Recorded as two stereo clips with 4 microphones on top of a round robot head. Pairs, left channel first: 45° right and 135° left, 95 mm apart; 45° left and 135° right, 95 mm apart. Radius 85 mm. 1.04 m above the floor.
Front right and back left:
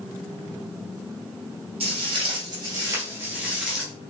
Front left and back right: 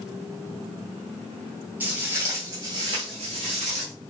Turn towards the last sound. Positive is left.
turn(degrees=-135)